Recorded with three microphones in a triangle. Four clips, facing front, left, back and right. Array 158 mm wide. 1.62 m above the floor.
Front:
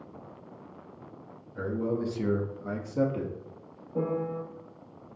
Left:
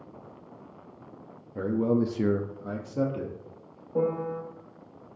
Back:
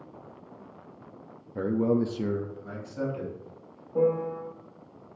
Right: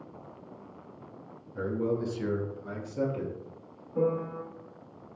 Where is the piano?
100° left, 2.5 m.